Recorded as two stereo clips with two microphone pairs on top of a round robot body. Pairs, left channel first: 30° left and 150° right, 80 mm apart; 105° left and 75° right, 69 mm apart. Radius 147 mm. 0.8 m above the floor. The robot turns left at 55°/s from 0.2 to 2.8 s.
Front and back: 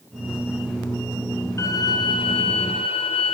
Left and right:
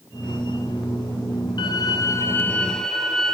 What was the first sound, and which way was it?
A violin, 85° left.